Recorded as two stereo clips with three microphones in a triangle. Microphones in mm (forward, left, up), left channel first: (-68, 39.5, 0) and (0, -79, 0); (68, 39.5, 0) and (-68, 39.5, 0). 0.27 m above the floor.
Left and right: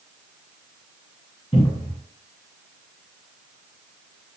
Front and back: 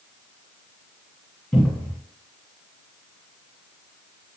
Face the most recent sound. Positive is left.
turn(degrees=85)